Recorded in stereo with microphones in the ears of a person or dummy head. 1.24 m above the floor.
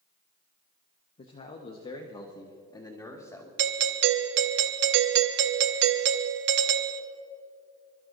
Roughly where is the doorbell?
Right.